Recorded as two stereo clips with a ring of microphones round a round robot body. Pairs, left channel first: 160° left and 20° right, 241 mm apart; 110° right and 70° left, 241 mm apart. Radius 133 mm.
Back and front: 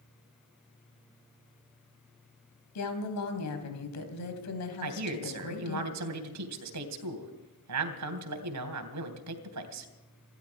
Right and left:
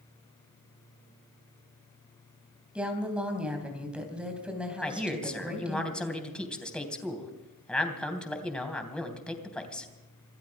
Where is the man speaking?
25° right, 3 m.